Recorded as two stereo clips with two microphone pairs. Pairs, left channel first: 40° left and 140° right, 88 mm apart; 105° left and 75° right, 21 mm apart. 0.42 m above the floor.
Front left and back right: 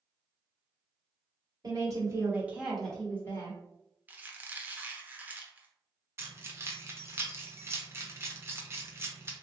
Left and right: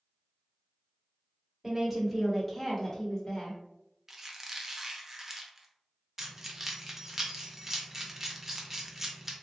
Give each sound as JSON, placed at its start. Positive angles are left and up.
{"t": 1.6, "sound": "a woman speaking", "azimuth_deg": -140, "distance_m": 1.3}
{"t": 4.1, "sound": "a squeak", "azimuth_deg": -95, "distance_m": 0.6}
{"t": 6.2, "sound": "keys jangling", "azimuth_deg": -115, "distance_m": 0.6}